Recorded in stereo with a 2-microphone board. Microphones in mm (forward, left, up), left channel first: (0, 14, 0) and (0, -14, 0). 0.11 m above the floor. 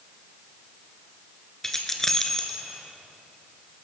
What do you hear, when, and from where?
1.6 s keys jangling: 15° left (ahead or behind), 1.3 m